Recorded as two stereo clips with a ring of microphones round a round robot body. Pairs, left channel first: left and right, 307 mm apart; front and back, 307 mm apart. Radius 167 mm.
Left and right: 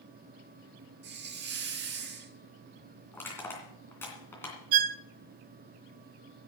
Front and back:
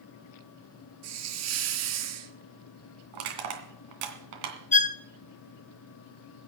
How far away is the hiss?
About 1.2 m.